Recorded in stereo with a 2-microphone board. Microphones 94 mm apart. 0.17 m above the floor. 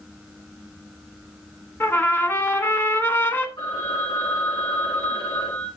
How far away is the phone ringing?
About 7 m.